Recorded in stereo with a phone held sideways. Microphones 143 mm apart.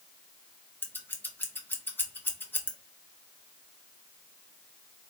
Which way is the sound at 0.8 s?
15° left (ahead or behind).